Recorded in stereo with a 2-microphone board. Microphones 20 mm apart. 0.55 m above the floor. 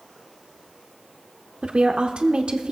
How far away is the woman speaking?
About 1.0 m.